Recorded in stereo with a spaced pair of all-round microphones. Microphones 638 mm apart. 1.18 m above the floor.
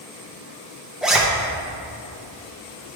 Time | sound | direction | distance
1.0 | a zipper | centre (ahead or behind) | 0.6 m